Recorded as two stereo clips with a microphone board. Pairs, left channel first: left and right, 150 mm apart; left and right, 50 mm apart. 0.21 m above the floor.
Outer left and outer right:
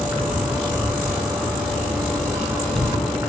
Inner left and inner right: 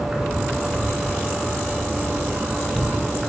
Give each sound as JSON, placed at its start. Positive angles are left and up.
{"t": 0.0, "sound": "an insect", "side_deg": -20, "distance_m": 1.0}